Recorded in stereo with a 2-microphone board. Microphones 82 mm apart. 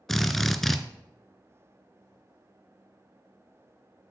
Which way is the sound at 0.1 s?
Centre (ahead or behind).